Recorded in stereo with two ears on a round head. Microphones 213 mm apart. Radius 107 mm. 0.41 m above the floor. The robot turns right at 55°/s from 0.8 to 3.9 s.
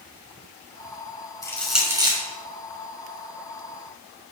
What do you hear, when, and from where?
1.4 s crushing: 15° left (ahead or behind), 5.5 m; by 2.2 s 25° right (ahead or behind), 5.5 m